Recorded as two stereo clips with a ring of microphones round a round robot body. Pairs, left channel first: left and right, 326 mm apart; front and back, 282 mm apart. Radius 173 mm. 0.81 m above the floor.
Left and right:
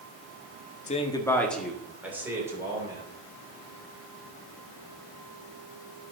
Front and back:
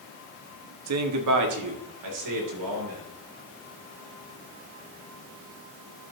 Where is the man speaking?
155° left, 1.3 m; by 3.0 s 170° right, 4 m.